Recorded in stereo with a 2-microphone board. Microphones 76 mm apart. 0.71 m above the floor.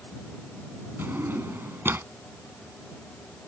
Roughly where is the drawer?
Right.